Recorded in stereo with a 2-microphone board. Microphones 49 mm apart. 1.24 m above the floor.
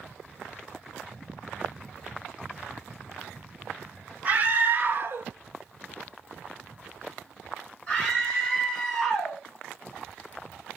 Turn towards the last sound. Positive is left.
turn(degrees=10)  # may be behind; listen again after turning